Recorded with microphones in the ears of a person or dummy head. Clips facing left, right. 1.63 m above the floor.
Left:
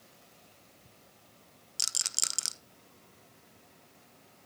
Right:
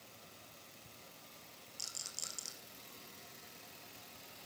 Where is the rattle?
85° left, 0.8 m.